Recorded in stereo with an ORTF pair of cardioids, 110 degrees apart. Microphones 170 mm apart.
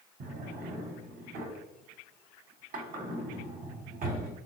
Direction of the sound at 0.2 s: 55° right.